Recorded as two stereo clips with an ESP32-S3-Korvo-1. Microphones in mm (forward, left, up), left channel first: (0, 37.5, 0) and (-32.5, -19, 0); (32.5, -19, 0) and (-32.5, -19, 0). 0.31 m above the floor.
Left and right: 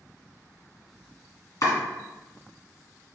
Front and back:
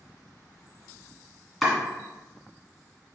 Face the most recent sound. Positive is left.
turn(degrees=90)